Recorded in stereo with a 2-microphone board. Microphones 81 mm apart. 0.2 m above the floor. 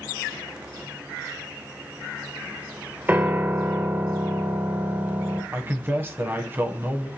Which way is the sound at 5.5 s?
25° right (ahead or behind).